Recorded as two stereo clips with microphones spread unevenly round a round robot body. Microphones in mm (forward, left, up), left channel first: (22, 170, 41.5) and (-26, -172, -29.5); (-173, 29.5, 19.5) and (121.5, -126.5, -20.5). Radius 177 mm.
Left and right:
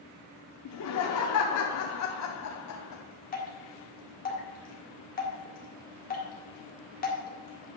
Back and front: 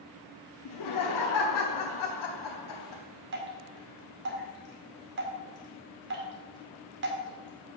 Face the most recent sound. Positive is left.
turn(degrees=15)